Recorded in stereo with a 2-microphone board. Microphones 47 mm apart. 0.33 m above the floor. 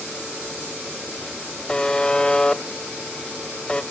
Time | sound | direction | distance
1.7 | a buzzer | 20° left (ahead or behind) | 0.6 m